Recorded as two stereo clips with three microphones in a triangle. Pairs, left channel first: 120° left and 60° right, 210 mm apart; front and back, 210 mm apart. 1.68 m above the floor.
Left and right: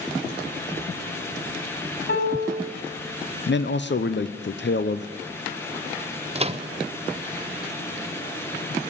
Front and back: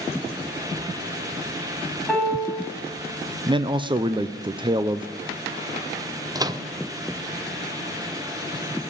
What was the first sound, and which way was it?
A piano, 90° left.